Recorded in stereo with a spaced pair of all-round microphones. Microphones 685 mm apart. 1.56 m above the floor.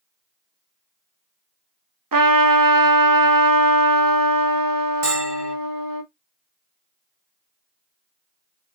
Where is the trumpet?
35° right (ahead or behind), 0.6 m.